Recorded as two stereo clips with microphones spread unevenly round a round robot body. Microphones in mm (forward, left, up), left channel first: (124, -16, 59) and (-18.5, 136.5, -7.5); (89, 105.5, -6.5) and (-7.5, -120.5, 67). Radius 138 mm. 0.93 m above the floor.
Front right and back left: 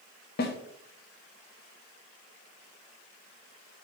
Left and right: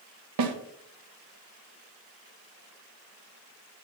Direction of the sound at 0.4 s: 105° right.